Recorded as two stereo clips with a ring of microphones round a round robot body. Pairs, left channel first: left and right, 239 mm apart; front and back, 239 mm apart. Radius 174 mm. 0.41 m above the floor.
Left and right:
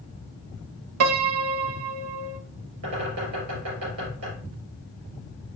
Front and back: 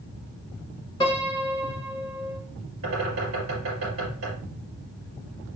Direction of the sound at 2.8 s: 135° right.